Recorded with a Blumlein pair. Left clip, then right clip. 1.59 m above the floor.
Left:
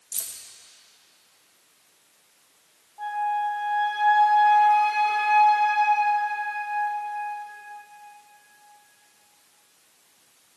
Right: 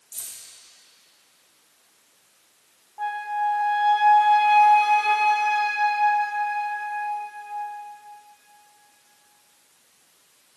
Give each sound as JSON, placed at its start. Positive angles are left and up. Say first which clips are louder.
{"t": 0.1, "sound": "keys jangling", "louder": "left 4 dB", "azimuth_deg": 25, "distance_m": 1.6}
{"t": 3.0, "sound": "a flute", "louder": "even", "azimuth_deg": -70, "distance_m": 1.5}